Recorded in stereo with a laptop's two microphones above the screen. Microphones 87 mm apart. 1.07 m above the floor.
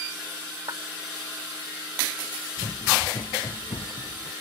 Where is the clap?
55° right (ahead or behind).